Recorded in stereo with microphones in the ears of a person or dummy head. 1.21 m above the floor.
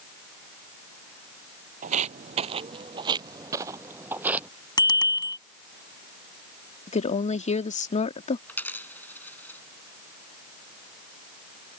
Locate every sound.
1.8 s footsteps: 40° right (ahead or behind); by 4.5 s 10° right (ahead or behind)
4.8 s a bicycle bell: 20° left (ahead or behind)
6.9 s a woman speaking: 35° left (ahead or behind)
8.5 s a dropped coin: 10° left (ahead or behind)